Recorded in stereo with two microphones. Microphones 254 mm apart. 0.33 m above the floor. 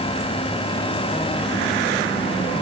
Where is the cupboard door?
No cupboard door in this recording.